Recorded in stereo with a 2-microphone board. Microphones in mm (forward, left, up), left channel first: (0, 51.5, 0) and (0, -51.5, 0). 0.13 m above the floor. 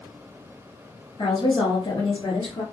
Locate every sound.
1.2 s a woman speaking: 50° left (ahead or behind), 1.8 m